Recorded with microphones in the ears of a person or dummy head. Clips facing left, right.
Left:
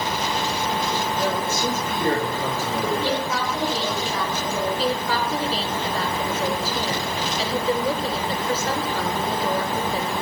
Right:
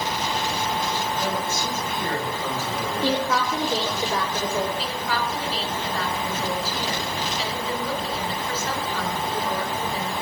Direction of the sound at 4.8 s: 30° left (ahead or behind).